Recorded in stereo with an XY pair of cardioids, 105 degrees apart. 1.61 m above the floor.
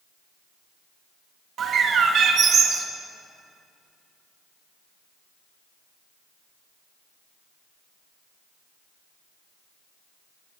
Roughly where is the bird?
Ahead right.